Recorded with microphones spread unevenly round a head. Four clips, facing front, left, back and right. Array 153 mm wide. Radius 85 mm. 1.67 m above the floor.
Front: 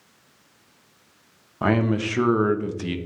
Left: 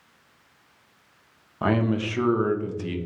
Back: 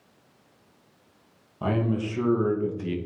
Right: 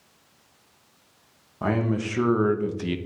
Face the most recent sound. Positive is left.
turn(degrees=-30)